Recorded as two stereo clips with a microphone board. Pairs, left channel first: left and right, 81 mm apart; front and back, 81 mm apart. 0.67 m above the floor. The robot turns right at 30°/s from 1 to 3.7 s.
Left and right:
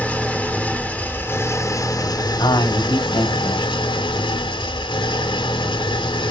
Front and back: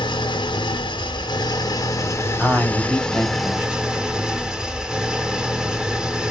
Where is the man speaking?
85° left, 4 m; by 3.8 s 120° left, 4 m.